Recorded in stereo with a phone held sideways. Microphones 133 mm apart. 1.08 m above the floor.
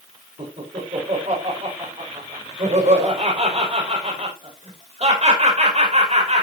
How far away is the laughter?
About 5 m.